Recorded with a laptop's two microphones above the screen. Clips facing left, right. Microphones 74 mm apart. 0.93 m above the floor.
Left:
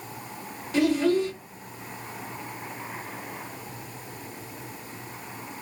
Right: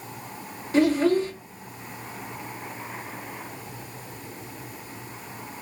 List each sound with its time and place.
0.7 s a child speaking: 35° right (ahead or behind), 1.1 m